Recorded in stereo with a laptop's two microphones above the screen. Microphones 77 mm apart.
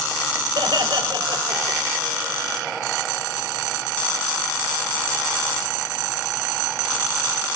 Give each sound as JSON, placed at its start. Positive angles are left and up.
{"t": 0.6, "sound": "laughter", "side_deg": -85, "distance_m": 3.5}